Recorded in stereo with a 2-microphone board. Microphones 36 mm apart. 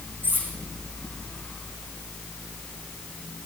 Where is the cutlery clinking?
80° right, 6.5 m.